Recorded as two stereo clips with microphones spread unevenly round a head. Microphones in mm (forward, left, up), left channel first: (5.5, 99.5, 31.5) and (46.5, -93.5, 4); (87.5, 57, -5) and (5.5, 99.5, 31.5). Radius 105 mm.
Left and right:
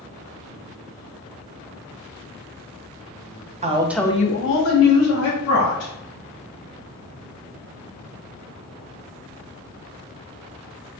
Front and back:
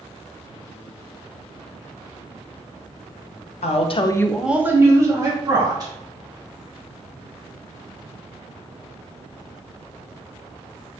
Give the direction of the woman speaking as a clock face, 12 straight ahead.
1 o'clock.